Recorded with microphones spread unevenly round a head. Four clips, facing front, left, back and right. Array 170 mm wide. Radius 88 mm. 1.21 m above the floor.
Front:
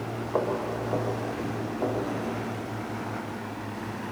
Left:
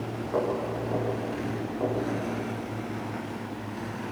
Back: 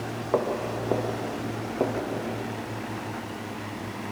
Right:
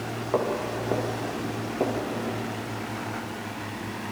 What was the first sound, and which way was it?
Footsteps, 165° right.